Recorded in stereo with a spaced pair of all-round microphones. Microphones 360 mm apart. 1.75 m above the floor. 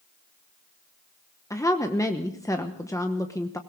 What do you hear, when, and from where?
1.5 s a woman speaking: 10° left (ahead or behind), 1.0 m